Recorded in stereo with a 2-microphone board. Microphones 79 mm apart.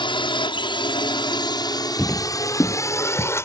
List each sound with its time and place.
0.0 s a drone: 70° left (ahead or behind); by 3.5 s 30° left (ahead or behind)
2.0 s footsteps: 20° left (ahead or behind); by 3.3 s 50° left (ahead or behind)